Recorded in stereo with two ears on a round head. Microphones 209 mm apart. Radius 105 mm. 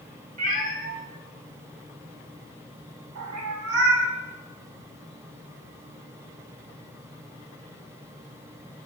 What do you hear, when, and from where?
0.4 s a cat meowing: 20° left (ahead or behind), 1.7 m; by 4.1 s 60° right (ahead or behind), 1.3 m